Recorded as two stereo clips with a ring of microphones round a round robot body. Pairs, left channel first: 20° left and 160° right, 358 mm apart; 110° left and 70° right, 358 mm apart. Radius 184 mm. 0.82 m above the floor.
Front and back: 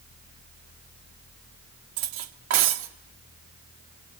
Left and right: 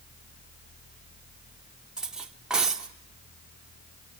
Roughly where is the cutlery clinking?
Behind right.